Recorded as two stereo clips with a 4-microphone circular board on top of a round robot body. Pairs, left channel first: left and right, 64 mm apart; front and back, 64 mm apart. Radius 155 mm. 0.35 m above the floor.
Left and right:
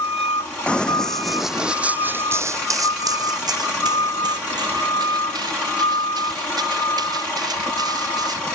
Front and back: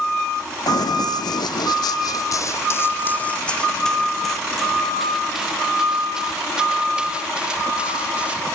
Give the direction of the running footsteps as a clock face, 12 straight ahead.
11 o'clock.